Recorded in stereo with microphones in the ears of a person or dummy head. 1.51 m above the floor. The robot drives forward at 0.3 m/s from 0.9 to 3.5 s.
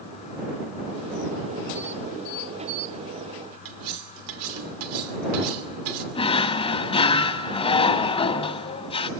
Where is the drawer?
25° left (ahead or behind), 1.4 m.